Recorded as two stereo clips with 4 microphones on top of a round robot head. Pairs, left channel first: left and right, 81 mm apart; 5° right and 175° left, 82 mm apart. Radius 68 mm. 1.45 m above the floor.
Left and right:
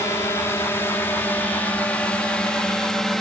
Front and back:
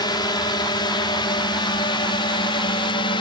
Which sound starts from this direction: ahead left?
A drone, at 0.0 s.